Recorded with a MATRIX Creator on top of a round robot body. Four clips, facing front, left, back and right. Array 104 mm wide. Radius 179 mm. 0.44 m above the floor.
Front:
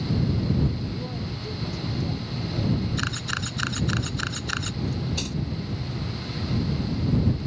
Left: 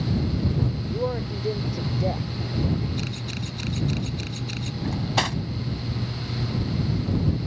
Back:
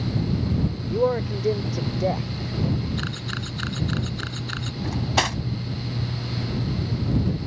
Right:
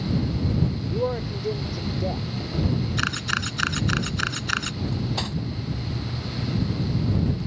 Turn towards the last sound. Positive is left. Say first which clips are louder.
# left 6 dB, back 9 dB
turn(degrees=155)